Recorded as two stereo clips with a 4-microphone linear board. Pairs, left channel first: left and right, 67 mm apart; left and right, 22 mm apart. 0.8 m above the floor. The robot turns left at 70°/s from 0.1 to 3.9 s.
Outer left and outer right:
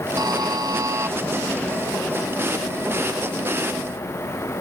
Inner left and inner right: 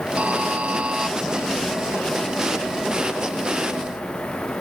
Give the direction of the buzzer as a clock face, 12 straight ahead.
2 o'clock.